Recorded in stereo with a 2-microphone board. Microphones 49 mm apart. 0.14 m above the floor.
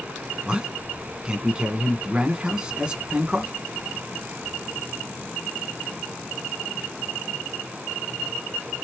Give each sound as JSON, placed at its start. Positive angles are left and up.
{"t": 0.5, "sound": "a man speaking", "side_deg": -15, "distance_m": 1.0}